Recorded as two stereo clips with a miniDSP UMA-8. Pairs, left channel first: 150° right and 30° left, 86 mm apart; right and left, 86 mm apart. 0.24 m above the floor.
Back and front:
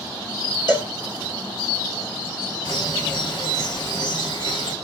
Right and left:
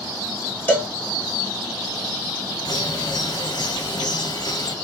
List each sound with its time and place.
0.7 s a cowbell: 150° right, 3 m
2.6 s a bird: 125° right, 2 m